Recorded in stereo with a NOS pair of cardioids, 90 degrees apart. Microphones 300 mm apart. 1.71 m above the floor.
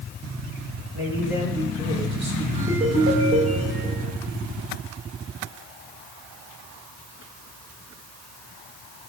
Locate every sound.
0.9 s a man speaking: 70° right, 3.5 m; by 2.5 s 30° right, 3.5 m
2.5 s a ringtone: 45° right, 3.5 m